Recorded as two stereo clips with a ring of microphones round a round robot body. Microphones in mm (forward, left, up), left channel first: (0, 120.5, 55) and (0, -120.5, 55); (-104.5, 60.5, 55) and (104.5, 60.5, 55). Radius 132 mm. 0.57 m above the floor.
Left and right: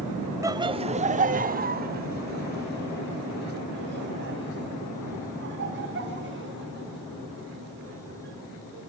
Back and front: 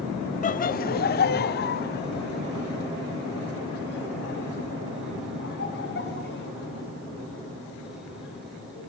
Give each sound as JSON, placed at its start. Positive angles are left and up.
{"t": 0.4, "sound": "laughter", "azimuth_deg": -160, "distance_m": 0.9}